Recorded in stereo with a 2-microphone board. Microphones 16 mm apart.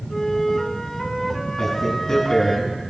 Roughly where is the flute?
Left.